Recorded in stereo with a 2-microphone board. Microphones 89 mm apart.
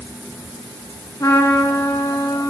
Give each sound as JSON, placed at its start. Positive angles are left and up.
{"t": 1.2, "sound": "a trumpet", "side_deg": 35, "distance_m": 0.8}